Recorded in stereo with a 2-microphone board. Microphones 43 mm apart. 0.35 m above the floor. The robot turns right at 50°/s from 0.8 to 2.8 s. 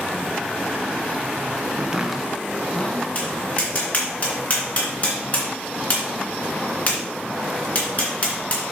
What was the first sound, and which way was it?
Chopping, 20° right (ahead or behind).